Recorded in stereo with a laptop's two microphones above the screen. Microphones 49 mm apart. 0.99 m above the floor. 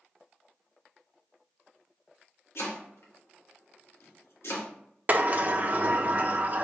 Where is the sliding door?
35° right (ahead or behind), 0.6 m.